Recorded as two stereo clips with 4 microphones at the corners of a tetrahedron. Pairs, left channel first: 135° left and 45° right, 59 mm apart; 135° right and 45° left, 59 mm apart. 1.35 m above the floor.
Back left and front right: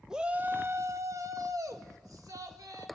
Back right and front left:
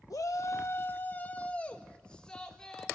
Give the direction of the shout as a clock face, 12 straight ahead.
4 o'clock.